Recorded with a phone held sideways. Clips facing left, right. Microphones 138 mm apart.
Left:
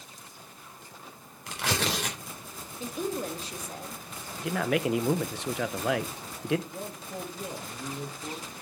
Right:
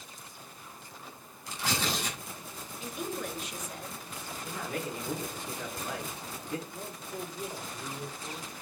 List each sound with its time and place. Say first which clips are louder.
1.5 s tearing paper: left 3 dB; 70° left (ahead or behind), 3.5 m
2.8 s a woman speaking: left 5 dB; 35° left (ahead or behind), 1.8 m
4.4 s a man speaking: left 10 dB; 85° left, 0.9 m
6.7 s a man speaking: left 2 dB; 50° left (ahead or behind), 3 m